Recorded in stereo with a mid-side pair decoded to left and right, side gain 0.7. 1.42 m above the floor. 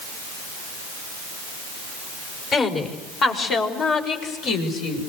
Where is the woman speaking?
40° left, 5.5 m; by 5.1 s 60° left, 6 m.